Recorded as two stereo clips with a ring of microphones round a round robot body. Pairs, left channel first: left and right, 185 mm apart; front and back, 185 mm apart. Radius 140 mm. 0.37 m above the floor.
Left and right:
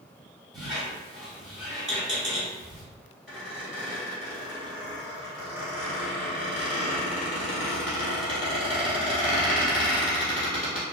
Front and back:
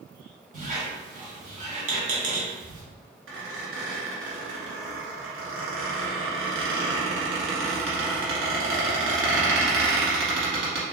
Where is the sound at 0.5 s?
Straight behind, 1.1 m.